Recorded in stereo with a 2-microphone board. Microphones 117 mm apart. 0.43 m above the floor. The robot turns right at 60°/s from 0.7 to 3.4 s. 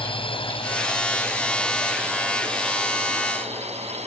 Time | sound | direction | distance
0.0 | a drone | 50° left (ahead or behind) | ?